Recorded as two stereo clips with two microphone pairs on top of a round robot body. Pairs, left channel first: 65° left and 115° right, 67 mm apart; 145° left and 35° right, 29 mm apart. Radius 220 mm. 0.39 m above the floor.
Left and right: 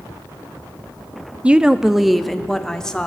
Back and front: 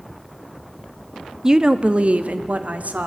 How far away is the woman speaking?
About 0.9 m.